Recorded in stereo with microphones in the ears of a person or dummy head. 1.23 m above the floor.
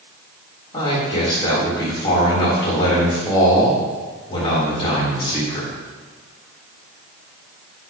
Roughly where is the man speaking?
Left.